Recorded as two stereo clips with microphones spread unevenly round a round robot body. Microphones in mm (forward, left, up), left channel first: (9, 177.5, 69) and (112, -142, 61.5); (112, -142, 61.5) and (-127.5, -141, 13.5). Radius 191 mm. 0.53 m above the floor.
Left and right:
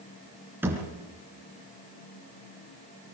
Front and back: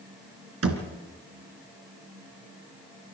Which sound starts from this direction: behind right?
A thud, at 0.6 s.